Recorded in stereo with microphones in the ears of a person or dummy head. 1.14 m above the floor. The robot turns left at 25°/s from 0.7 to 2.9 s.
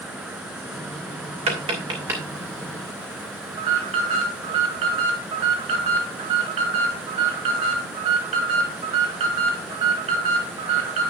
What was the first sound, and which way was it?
Tapping, 30° right (ahead or behind).